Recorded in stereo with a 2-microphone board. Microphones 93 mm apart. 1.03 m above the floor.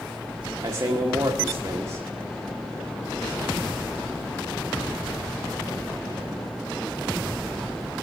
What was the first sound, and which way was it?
A man speaking, 45° right (ahead or behind).